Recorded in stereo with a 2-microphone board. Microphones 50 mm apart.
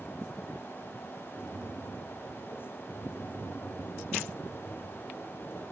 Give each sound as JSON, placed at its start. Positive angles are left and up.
{"t": 1.3, "sound": "tapping", "side_deg": -70, "distance_m": 4.5}